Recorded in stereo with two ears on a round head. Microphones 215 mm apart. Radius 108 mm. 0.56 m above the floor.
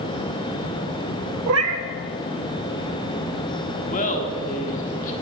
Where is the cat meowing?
65° right (ahead or behind), 1.0 m.